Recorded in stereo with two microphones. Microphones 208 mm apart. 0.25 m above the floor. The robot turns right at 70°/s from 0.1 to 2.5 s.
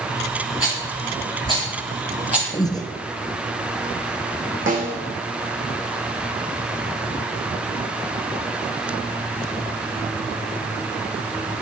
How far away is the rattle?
About 6 m.